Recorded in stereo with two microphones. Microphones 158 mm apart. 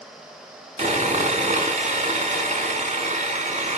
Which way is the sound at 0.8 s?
50° right (ahead or behind).